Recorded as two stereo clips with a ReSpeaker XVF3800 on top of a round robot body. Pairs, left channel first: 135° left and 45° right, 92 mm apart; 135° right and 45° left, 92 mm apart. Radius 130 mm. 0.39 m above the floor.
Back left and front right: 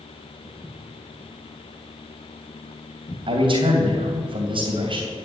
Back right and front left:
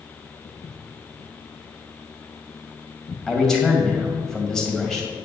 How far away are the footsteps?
About 2.5 m.